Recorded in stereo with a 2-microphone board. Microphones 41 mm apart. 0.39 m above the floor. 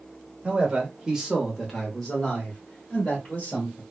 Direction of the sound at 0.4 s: 30° right (ahead or behind).